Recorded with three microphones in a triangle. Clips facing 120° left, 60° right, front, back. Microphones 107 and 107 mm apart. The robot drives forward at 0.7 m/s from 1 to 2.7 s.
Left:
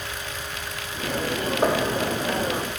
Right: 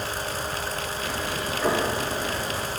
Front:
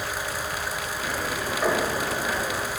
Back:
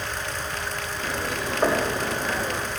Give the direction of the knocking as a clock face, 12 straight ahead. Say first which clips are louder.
Left 2 dB, back 2 dB; 8 o'clock.